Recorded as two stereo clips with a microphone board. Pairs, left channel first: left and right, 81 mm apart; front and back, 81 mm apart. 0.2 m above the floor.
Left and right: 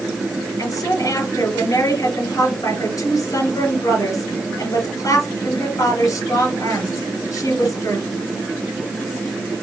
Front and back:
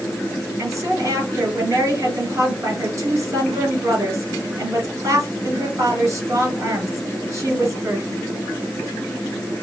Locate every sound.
0.6 s a woman speaking: 130° left, 3 m